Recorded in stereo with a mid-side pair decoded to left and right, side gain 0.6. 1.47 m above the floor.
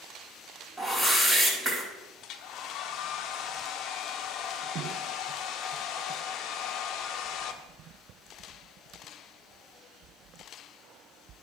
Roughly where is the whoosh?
Ahead.